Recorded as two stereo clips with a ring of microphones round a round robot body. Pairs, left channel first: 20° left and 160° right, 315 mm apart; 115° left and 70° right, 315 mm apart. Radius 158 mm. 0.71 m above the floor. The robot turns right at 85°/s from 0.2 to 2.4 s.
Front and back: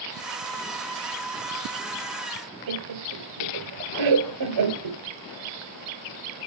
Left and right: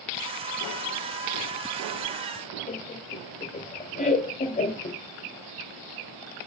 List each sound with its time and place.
2.7 s laughter: straight behind, 3 m